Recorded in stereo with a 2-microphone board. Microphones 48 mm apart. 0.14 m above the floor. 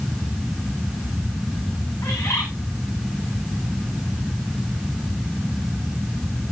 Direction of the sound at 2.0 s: 75° left (ahead or behind).